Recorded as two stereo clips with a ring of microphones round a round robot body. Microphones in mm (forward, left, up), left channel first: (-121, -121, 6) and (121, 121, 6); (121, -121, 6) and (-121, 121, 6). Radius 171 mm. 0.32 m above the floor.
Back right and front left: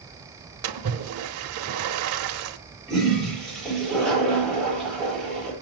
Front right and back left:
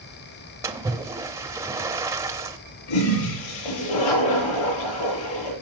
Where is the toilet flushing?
45° right, 8.5 m.